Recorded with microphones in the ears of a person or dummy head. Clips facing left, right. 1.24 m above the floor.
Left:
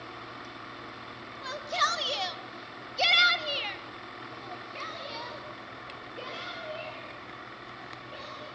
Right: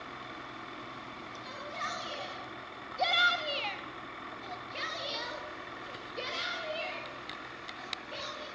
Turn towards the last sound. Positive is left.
turn(degrees=-30)  # may be behind; listen again after turning